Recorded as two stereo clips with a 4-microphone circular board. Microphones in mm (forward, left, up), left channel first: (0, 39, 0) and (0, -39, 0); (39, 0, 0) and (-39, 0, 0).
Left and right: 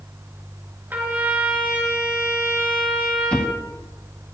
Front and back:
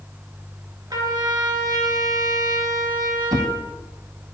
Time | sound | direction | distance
0.9 | a trumpet | 155° right | 3 m
3.3 | a drawer | 165° left | 1.3 m